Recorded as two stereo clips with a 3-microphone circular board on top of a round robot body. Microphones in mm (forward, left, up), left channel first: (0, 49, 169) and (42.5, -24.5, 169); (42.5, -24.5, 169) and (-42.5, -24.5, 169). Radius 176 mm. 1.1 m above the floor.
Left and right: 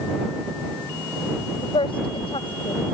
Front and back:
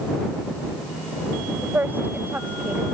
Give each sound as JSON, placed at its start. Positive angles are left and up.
{"t": 1.6, "sound": "a woman speaking", "azimuth_deg": 110}